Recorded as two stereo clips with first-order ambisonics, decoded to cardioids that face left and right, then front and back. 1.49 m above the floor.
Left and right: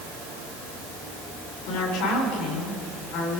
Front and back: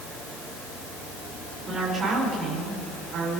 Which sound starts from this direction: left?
A woman speaking, at 1.7 s.